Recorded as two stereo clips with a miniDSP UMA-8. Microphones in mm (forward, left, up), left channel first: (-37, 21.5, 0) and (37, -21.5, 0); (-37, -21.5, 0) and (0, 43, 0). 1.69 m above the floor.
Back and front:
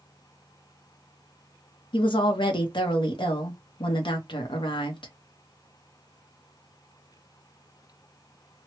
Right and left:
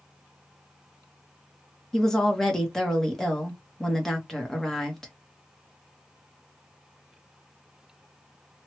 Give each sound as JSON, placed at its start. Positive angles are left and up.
{"t": 1.9, "sound": "a woman speaking", "azimuth_deg": 155, "distance_m": 0.9}